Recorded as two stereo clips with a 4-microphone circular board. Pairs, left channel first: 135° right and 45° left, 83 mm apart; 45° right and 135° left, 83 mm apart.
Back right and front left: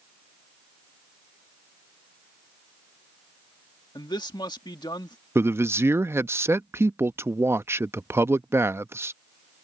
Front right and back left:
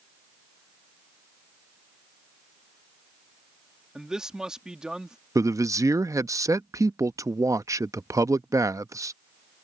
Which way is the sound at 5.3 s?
95° left.